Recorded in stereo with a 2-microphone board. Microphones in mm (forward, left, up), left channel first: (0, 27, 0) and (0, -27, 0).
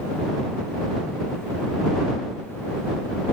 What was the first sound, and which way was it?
Only background noise.